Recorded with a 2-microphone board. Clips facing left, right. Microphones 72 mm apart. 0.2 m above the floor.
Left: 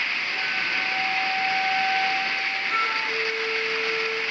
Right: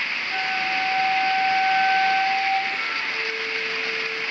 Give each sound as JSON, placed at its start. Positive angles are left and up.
{"t": 0.3, "sound": "a flute", "side_deg": -65, "distance_m": 7.5}
{"t": 2.7, "sound": "a flute", "side_deg": 60, "distance_m": 4.0}